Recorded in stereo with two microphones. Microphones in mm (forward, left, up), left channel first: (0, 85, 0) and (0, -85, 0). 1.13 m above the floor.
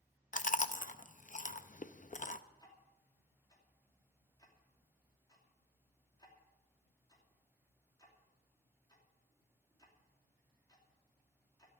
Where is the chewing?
50° left (ahead or behind), 0.5 m.